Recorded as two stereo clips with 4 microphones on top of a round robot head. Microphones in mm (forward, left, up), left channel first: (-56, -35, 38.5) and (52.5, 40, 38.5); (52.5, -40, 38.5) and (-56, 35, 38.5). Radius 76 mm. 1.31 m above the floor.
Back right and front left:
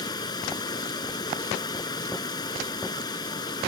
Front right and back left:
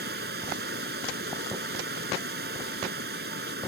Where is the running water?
155° left.